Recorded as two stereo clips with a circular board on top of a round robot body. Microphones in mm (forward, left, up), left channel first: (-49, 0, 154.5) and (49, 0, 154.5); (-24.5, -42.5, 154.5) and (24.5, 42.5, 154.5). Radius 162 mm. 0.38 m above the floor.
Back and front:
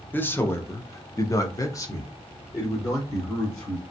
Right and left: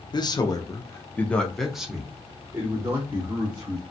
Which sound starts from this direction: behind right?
A man speaking, at 0.1 s.